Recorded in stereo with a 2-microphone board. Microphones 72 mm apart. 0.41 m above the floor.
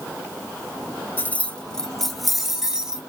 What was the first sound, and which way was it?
Keys jangling, 25° left (ahead or behind).